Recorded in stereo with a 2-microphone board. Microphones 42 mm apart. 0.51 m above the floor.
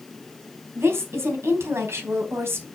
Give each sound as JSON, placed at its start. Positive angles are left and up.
{"t": 0.8, "sound": "a woman speaking", "side_deg": -75, "distance_m": 3.5}